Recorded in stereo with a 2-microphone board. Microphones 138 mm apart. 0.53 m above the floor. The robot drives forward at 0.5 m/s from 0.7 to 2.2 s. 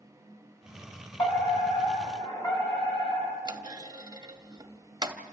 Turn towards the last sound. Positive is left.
turn(degrees=-30)  # may be behind; listen again after turning